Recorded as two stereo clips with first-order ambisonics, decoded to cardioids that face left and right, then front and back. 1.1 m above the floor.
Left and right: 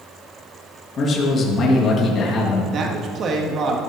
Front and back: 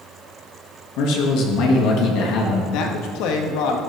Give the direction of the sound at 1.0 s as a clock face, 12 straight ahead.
11 o'clock.